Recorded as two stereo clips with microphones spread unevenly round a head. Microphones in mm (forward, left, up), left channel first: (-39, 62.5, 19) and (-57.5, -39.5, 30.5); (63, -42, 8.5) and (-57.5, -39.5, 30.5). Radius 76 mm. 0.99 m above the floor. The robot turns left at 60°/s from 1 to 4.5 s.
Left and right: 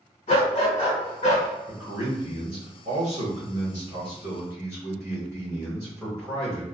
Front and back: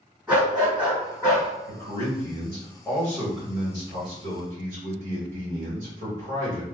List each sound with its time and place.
0.3 s a dog barking: 90° left, 1.8 m; by 1.5 s 60° left, 1.8 m
1.7 s a man speaking: 5° right, 1.5 m; by 6.6 s 175° right, 1.5 m